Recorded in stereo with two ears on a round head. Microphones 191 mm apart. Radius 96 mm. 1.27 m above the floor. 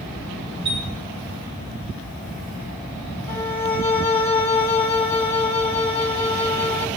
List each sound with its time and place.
0.7 s a chime: 65° right (ahead or behind), 9.5 m
3.3 s a violin: 10° left (ahead or behind), 1.9 m